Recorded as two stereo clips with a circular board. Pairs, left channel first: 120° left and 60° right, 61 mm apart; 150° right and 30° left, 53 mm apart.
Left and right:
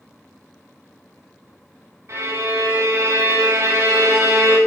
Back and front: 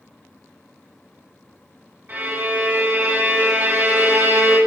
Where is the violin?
20° right, 2.0 m.